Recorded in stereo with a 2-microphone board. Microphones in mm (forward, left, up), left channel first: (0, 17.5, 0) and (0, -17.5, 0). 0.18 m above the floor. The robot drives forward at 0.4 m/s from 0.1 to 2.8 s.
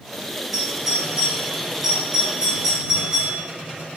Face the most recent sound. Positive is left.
turn(degrees=-10)  # may be behind; listen again after turning